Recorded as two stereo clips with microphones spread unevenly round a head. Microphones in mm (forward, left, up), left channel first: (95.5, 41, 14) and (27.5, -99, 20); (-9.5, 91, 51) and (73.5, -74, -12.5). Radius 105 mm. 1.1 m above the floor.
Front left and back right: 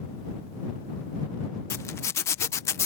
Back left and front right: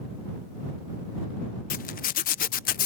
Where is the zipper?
105° left.